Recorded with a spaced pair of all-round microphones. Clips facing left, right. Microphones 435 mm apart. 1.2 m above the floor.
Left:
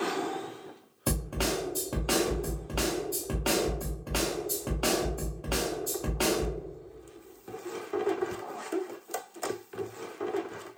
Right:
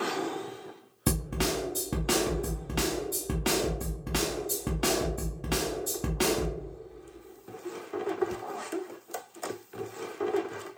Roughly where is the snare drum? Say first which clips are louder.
Right 1 dB; right.